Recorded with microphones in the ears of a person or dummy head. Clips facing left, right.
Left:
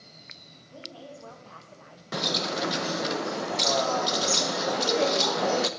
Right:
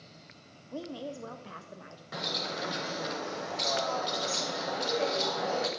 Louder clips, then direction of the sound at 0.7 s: Right 6 dB; 65° right (ahead or behind).